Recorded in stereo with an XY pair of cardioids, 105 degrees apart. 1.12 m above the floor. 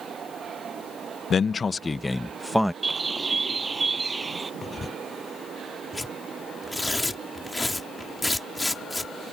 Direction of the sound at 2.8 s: 25° right.